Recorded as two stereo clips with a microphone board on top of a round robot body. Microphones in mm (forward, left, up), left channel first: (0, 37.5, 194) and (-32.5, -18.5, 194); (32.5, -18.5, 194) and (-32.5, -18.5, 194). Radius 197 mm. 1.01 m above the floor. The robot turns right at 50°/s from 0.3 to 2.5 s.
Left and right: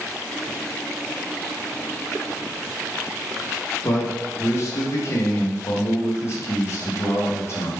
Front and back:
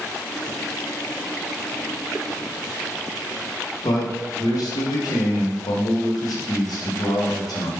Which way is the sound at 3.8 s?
15° left.